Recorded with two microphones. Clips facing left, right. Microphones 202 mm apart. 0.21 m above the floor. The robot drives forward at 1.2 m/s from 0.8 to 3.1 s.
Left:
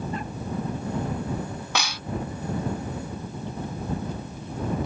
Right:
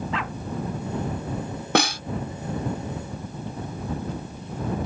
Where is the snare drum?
55° right (ahead or behind); by 2.0 s 45° right (ahead or behind).